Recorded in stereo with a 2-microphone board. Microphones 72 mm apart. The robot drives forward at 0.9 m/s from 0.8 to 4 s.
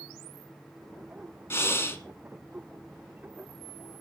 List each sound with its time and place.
1.5 s breathing: 35° left (ahead or behind), 1.3 m; by 2.0 s 30° left (ahead or behind), 1.4 m